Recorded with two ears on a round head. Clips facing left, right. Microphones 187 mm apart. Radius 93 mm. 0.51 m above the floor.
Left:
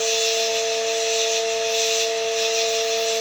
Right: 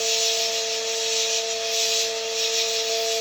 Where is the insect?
10° right (ahead or behind), 1.8 m.